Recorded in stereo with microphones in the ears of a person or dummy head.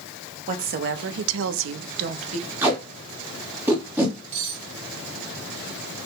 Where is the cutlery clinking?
35° right (ahead or behind), 2.5 m.